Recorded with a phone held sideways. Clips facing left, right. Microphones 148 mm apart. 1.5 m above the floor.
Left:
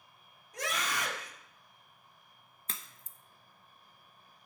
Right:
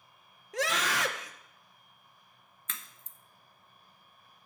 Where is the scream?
90° right, 1.3 m.